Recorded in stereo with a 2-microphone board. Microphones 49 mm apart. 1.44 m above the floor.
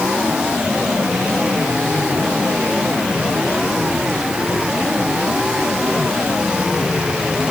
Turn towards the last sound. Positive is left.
No sound to turn to.